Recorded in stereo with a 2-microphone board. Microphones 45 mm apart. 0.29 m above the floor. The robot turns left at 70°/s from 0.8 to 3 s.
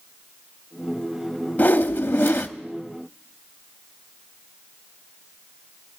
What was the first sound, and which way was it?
A whoosh, 130° left.